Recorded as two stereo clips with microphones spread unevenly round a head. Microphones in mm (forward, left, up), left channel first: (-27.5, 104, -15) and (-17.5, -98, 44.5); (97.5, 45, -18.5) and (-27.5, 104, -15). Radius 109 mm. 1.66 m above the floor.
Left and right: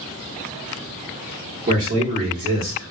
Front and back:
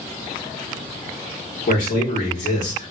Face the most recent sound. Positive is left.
turn(degrees=-50)